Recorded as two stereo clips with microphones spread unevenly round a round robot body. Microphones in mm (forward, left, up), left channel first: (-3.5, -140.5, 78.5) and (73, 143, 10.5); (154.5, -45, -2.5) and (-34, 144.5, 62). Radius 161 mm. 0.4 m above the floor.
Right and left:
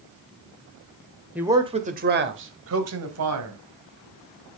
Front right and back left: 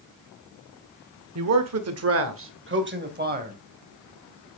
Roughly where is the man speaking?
Behind left.